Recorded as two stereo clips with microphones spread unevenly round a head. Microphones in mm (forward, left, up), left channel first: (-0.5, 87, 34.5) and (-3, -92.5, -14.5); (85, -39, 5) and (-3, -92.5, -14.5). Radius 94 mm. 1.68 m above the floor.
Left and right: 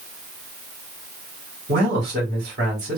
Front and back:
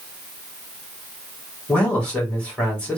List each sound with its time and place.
1.7 s a man speaking: 50° right, 2.5 m